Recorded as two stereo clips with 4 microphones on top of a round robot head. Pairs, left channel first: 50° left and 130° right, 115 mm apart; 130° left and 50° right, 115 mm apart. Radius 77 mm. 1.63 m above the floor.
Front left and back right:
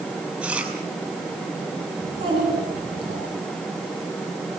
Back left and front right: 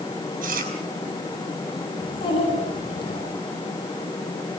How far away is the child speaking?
About 9.5 m.